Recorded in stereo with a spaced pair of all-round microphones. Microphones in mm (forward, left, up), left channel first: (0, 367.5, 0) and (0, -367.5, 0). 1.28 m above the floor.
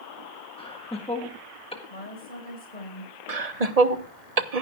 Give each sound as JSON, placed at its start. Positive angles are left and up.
{"t": 0.6, "sound": "laughter", "side_deg": 10, "distance_m": 1.6}
{"t": 1.9, "sound": "a woman speaking", "side_deg": 75, "distance_m": 6.0}
{"t": 3.3, "sound": "laughter", "side_deg": -55, "distance_m": 1.2}